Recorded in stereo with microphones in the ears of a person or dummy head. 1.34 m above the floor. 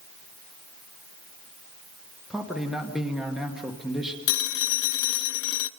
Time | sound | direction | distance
2.3 | a man speaking | centre (ahead or behind) | 1.7 m
4.3 | a phone ringing | 60° left (ahead or behind) | 0.8 m